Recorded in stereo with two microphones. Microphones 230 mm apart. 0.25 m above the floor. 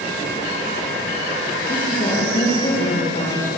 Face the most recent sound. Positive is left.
turn(degrees=35)  # may be behind; listen again after turning